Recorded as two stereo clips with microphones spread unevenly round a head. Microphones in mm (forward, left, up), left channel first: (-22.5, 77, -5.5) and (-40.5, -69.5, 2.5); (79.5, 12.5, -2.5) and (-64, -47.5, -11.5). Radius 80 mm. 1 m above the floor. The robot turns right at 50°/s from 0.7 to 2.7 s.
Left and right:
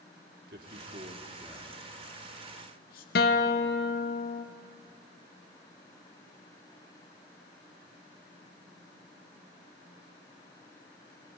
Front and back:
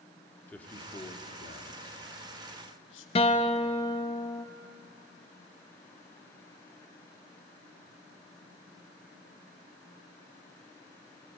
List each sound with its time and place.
0.5 s a man speaking: 60° right, 2 m; by 3.0 s 40° left, 2 m
3.1 s a guitar: 80° left, 1.0 m